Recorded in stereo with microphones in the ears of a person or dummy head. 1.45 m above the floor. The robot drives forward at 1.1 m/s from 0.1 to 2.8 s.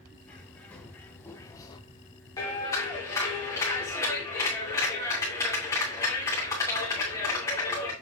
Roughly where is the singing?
I don't hear singing.